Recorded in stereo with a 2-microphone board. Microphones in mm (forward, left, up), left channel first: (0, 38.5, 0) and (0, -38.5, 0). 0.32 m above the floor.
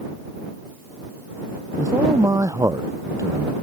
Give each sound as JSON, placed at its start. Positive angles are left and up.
{"t": 1.8, "sound": "a man speaking", "side_deg": -45}